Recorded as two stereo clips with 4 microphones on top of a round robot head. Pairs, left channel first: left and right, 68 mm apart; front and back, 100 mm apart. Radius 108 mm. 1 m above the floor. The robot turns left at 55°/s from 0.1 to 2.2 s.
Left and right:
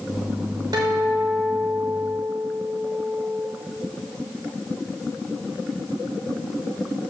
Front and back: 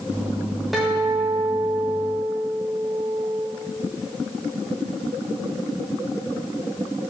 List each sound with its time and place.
0.7 s a guitar: 90° right, 0.9 m; by 3.5 s 170° right, 0.9 m